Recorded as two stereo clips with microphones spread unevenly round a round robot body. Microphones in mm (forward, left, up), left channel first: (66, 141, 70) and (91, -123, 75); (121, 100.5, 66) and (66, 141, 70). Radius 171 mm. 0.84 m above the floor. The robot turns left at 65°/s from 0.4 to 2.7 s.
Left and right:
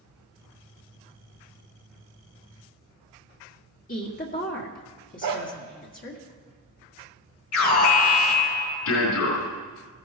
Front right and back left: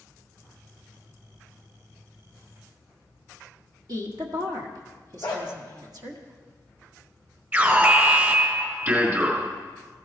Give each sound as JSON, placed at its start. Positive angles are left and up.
{"t": 3.9, "sound": "a woman speaking", "azimuth_deg": 150, "distance_m": 1.5}
{"t": 5.2, "sound": "a dog barking", "azimuth_deg": -110, "distance_m": 1.3}
{"t": 7.5, "sound": "an alarm", "azimuth_deg": 90, "distance_m": 4.5}